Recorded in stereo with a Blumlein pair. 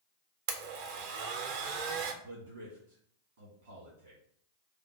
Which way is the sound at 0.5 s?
50° right.